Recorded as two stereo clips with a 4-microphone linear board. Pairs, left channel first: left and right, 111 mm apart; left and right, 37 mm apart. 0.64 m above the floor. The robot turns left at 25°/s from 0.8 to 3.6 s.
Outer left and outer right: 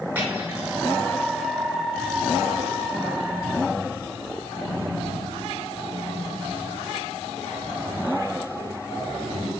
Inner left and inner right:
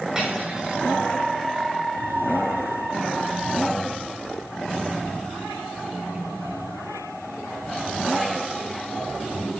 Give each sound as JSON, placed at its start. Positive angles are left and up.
{"t": 0.1, "sound": "cutlery clinking", "side_deg": -15, "distance_m": 5.0}